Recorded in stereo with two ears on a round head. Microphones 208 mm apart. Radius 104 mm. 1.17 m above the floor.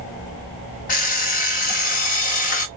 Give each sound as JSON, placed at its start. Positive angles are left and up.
{"t": 0.9, "sound": "an alarm clock", "side_deg": 35, "distance_m": 1.1}